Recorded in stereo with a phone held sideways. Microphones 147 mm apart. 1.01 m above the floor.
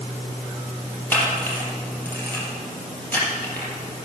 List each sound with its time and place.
1.1 s a camera shutter: 15° left (ahead or behind), 4.5 m